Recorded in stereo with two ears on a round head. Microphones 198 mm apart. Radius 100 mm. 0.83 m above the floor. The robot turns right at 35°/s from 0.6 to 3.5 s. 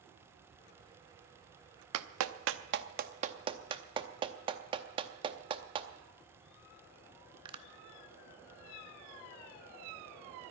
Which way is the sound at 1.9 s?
75° right (ahead or behind).